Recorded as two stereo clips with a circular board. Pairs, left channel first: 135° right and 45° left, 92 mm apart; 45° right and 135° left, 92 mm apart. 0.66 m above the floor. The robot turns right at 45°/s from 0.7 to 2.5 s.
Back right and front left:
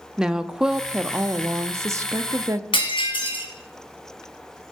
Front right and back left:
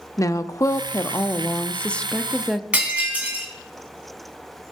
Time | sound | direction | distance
0.2 | a woman speaking | 30° right | 0.6 m
2.7 | breaking glass | 150° right | 3.5 m